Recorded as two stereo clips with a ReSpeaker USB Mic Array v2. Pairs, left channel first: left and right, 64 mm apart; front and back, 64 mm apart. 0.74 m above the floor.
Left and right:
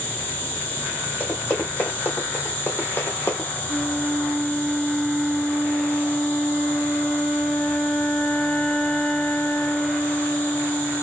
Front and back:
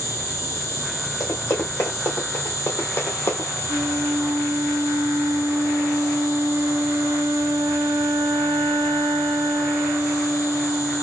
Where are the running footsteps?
35° left, 2.5 m; by 3.6 s 45° left, 1.2 m.